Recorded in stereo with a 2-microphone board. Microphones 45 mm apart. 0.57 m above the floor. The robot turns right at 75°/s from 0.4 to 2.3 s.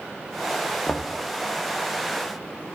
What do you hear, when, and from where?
0.9 s knocking: 20° left (ahead or behind), 0.6 m